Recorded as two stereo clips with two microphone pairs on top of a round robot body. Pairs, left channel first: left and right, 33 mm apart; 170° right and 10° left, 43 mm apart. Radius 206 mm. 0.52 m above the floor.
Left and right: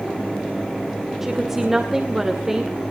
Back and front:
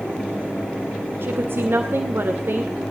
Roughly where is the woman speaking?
Ahead.